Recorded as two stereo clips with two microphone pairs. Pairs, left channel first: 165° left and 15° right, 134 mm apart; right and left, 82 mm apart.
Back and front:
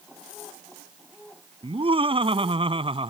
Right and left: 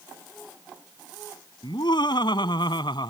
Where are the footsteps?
I don't hear footsteps.